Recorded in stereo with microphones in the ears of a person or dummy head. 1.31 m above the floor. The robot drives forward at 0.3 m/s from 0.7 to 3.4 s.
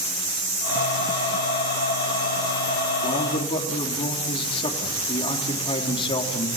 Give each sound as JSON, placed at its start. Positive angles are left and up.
{"t": 3.0, "sound": "a man speaking", "side_deg": 25, "distance_m": 3.5}